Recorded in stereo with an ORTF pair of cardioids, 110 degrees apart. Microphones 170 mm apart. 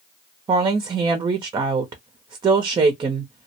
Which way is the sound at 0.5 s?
30° right.